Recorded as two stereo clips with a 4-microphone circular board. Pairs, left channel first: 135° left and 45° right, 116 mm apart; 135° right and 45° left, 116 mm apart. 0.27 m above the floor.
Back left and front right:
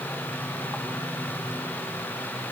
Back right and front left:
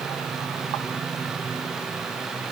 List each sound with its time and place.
Only background noise.